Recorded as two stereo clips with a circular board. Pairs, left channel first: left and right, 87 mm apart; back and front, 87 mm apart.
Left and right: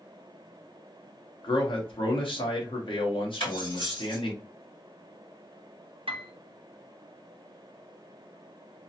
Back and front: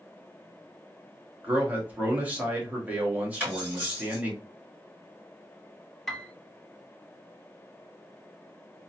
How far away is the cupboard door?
I don't hear a cupboard door.